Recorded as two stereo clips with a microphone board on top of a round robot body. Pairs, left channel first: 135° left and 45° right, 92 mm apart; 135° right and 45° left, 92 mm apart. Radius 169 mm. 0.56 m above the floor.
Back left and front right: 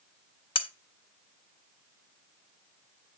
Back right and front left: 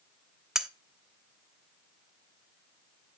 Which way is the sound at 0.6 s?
125° left.